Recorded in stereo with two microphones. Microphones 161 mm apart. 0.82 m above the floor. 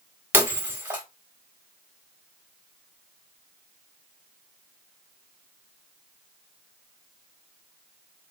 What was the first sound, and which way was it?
Breaking glass, 15° right (ahead or behind).